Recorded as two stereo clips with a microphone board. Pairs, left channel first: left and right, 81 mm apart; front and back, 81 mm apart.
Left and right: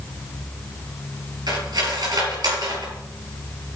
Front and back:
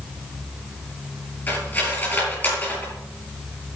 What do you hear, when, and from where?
1.5 s cutlery clinking: 65° right, 5.5 m